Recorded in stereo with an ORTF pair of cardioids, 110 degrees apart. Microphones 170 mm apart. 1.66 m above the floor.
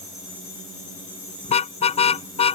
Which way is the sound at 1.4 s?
40° left.